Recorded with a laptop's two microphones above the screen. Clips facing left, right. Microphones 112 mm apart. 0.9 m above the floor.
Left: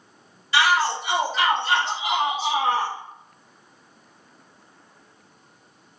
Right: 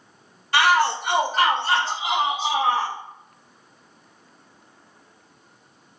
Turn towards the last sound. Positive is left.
turn(degrees=-5)  # may be behind; listen again after turning